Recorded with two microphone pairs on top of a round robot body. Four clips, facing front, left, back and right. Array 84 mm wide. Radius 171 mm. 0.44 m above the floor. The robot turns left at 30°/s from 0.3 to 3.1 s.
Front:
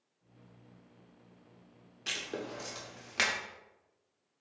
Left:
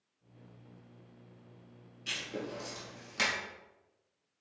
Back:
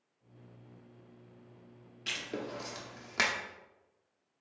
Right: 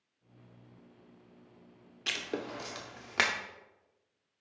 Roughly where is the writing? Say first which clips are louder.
Right 3 dB, even; right.